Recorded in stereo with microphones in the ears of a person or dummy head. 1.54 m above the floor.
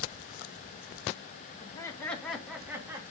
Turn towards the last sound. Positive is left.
turn(degrees=-15)  # may be behind; listen again after turning